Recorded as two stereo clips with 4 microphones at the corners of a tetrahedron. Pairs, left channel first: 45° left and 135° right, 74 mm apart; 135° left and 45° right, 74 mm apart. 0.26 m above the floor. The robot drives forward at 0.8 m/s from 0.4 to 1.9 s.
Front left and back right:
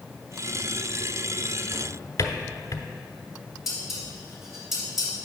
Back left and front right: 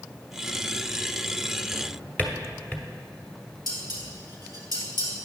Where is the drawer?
65° left, 1.0 m; by 2.9 s 75° left, 0.9 m.